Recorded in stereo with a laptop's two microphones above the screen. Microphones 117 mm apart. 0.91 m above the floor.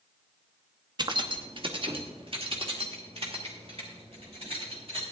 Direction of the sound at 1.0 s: 40° right (ahead or behind).